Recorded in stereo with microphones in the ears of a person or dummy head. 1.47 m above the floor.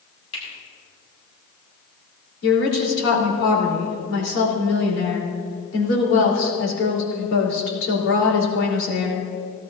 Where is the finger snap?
75° left (ahead or behind), 5.5 m.